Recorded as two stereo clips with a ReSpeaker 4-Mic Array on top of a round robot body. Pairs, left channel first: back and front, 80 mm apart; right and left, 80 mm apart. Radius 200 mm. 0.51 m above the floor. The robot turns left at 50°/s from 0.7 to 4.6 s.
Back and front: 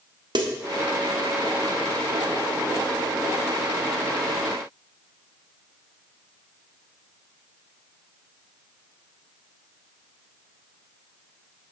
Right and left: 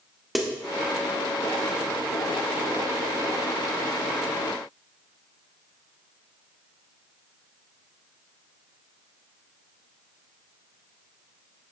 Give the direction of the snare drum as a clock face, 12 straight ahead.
12 o'clock.